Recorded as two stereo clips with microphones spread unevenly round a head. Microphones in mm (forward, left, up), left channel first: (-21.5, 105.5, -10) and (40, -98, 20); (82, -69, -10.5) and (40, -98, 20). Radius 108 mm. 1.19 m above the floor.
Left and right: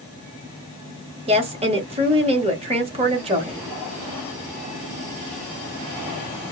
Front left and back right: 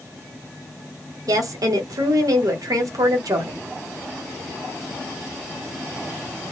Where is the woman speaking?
140° right, 0.9 m.